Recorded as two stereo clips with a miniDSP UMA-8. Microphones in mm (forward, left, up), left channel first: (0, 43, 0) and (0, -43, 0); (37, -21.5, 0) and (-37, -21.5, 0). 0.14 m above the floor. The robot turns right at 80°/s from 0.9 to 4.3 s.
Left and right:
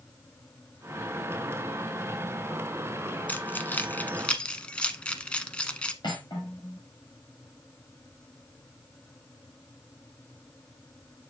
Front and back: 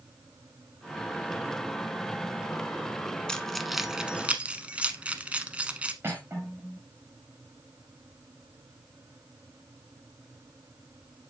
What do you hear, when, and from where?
3.3 s keys jangling: 60° left, 0.8 m; by 5.9 s 145° left, 0.8 m
6.0 s cutlery clinking: 125° left, 6.5 m